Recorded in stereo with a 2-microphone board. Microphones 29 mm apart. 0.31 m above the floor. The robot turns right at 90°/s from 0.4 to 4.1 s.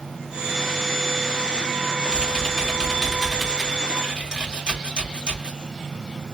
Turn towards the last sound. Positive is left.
turn(degrees=-25)  # may be behind; listen again after turning